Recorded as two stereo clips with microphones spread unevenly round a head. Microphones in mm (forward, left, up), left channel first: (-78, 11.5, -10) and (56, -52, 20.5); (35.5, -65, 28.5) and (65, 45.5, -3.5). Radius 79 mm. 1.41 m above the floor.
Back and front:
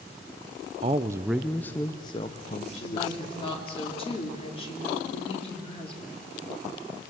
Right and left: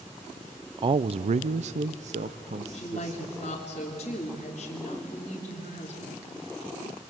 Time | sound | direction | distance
0.8 | a man speaking | 30° left | 0.5 m
2.7 | a woman speaking | 150° right | 2.5 m